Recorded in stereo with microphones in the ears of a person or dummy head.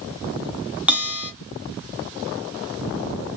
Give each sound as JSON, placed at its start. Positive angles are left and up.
{"t": 0.9, "sound": "a bell", "side_deg": -10, "distance_m": 0.6}